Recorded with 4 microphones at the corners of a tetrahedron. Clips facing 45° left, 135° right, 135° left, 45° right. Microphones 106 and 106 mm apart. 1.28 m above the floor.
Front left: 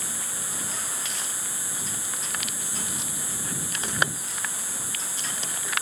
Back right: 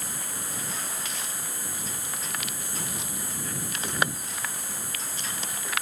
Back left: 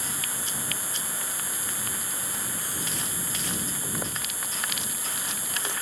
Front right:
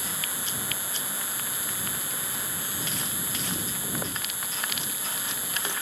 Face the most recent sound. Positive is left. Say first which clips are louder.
# even, even
turn(degrees=-175)